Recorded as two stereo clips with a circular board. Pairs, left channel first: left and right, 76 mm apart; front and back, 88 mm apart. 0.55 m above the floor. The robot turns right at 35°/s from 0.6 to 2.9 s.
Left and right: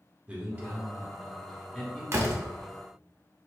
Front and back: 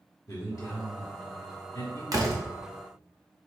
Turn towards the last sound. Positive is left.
turn(degrees=-110)